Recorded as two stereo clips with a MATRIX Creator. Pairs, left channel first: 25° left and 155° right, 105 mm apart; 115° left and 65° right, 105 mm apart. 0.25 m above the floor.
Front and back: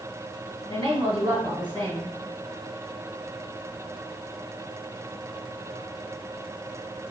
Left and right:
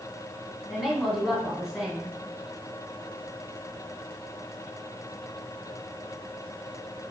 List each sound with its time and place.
0.7 s a woman speaking: 150° right, 1.6 m